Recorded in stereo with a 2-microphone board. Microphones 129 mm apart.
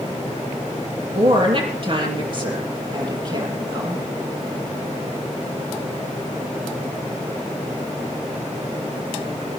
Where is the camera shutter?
No camera shutter in this recording.